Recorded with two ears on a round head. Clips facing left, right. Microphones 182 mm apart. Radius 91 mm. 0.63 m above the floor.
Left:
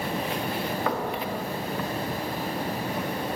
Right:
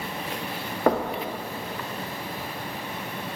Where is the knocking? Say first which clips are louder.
Right 9 dB; 35° right (ahead or behind), 0.7 m.